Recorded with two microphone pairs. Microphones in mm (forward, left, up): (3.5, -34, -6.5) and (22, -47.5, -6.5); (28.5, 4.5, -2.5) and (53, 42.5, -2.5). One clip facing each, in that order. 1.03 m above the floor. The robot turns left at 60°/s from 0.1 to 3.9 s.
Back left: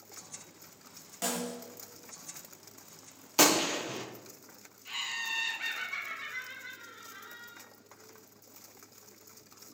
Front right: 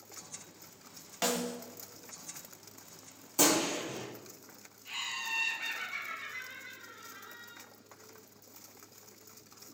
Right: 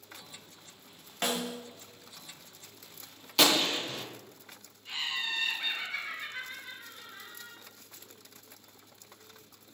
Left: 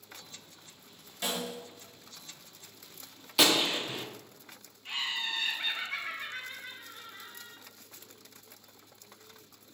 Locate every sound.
1.2 s a snare drum: 85° right, 0.7 m; by 1.6 s 105° right, 0.7 m
3.4 s a gunshot: 135° left, 0.6 m; by 4.1 s 105° left, 0.6 m
4.8 s laughter: 65° left, 1.5 m